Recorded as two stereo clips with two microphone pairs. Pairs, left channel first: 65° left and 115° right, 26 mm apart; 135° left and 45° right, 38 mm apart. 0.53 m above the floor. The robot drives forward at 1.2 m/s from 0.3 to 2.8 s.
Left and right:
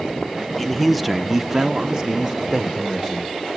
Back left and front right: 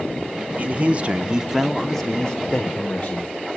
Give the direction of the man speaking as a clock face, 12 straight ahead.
1 o'clock.